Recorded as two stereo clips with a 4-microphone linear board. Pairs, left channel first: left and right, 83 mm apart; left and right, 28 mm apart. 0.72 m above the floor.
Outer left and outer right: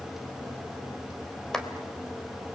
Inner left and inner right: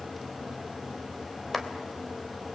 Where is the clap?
5° left (ahead or behind), 2.5 m.